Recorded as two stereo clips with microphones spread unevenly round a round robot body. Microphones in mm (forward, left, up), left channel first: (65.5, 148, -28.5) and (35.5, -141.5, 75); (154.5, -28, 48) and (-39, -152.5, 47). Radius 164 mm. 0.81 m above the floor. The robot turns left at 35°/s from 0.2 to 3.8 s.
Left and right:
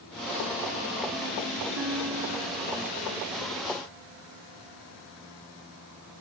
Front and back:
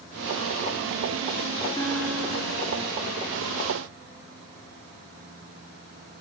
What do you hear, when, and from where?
1.8 s a guitar: 40° right, 2.5 m; by 2.7 s 75° right, 2.5 m